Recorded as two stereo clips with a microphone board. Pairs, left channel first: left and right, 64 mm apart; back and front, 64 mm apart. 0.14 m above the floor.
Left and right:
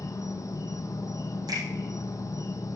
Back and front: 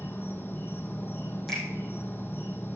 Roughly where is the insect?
Behind left.